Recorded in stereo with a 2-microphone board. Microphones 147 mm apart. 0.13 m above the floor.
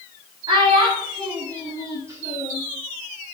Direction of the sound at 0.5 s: 35° right (ahead or behind).